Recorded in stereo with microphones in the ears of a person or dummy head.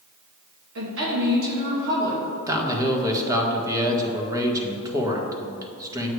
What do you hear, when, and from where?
0.8 s a woman speaking: 70° right (ahead or behind), 2.5 m
2.5 s a man speaking: 15° right (ahead or behind), 1.6 m